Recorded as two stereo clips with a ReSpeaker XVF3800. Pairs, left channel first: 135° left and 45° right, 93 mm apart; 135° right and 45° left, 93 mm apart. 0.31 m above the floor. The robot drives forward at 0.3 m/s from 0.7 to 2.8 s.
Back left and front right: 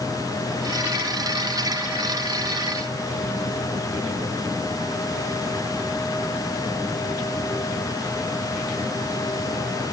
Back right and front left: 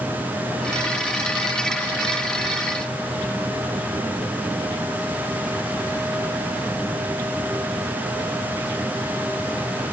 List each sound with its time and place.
Only background noise.